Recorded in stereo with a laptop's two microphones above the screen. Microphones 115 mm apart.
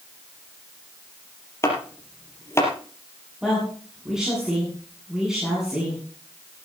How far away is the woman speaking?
About 8.5 m.